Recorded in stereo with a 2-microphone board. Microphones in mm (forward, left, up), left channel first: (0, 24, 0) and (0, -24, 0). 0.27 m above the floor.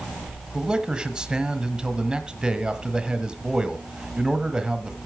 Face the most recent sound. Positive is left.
turn(degrees=-15)  # may be behind; listen again after turning